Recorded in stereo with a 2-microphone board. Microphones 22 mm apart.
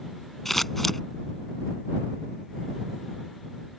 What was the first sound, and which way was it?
Scissors, 10° left (ahead or behind).